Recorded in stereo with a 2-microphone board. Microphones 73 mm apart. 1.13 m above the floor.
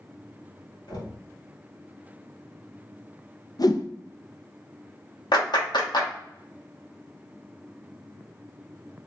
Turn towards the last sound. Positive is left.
turn(degrees=75)  # may be behind; listen again after turning